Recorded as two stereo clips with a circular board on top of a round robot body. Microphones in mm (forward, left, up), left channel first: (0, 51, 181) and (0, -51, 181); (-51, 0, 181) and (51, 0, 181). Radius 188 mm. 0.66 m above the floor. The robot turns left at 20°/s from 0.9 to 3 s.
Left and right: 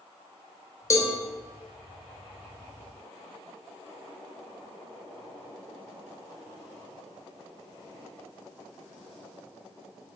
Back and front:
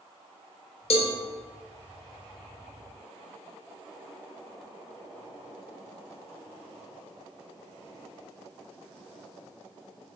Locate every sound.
0.9 s a cowbell: 150° left, 0.7 m; by 1.1 s 145° left, 0.7 m